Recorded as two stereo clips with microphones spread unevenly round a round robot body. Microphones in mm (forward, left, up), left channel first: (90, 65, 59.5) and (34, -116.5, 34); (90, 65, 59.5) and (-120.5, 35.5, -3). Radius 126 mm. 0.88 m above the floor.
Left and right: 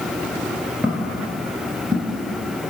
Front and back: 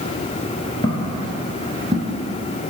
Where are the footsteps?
15° right, 1.0 m; by 2.1 s 130° right, 0.8 m.